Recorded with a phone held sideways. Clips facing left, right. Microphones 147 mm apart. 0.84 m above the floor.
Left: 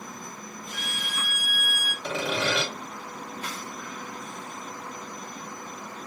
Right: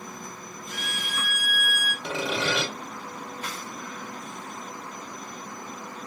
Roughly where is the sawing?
Centre.